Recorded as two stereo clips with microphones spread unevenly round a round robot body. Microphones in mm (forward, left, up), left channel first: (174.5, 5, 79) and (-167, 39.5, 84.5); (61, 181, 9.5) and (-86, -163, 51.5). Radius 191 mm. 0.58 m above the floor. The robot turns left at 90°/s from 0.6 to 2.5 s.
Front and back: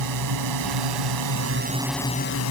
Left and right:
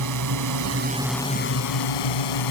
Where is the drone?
155° right; by 2.5 s 35° left.